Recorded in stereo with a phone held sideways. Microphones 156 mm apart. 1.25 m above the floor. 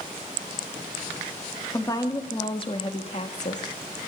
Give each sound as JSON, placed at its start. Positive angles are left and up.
{"t": 1.7, "sound": "a woman speaking", "side_deg": 20, "distance_m": 2.0}